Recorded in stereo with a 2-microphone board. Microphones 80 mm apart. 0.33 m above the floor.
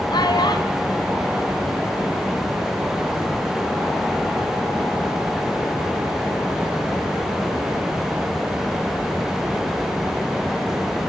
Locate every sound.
0.1 s a child speaking: 65° left (ahead or behind), 2.0 m; by 2.5 s 30° left (ahead or behind), 3 m